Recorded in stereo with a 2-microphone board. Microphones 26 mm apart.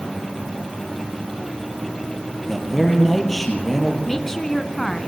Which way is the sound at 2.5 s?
5° left (ahead or behind).